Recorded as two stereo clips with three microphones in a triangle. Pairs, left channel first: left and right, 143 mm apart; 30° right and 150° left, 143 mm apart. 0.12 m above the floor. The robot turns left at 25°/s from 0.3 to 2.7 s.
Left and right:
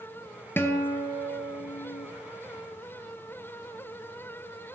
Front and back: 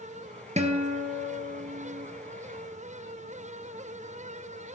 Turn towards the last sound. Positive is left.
turn(degrees=105)